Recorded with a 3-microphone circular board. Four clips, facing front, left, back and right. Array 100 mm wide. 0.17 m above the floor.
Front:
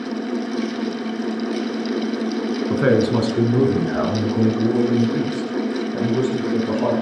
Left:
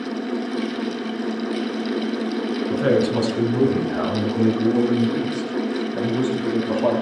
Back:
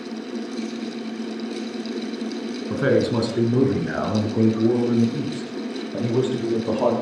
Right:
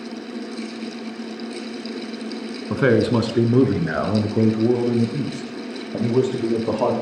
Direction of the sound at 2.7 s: 60° right.